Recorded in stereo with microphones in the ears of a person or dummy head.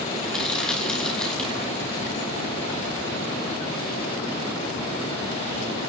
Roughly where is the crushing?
Centre.